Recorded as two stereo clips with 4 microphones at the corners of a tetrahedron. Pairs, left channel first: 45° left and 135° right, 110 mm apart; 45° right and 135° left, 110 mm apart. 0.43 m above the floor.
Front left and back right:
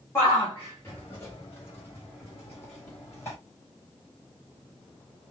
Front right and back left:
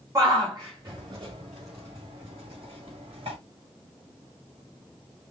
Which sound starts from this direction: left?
A shout, at 0.1 s.